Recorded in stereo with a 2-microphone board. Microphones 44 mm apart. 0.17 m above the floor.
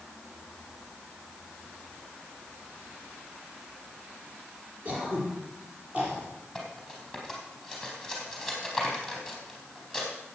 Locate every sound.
4.8 s throat clearing: 30° right (ahead or behind), 4.5 m
6.5 s cutlery clinking: centre (ahead or behind), 4 m